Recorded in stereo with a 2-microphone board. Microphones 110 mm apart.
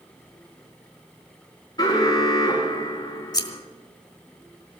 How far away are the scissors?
About 1.5 m.